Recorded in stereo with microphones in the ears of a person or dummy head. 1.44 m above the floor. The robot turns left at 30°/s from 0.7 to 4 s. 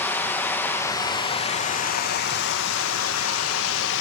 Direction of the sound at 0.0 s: 170° left.